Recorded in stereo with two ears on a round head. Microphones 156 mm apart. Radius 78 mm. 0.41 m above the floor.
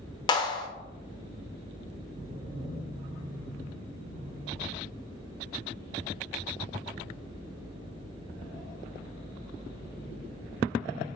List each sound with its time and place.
0.3 s a clap: 25° left (ahead or behind), 0.8 m